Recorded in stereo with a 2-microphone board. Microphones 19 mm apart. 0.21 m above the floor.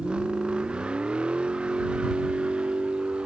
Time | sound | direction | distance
0.0 | a vehicle | 70° right (ahead or behind) | ?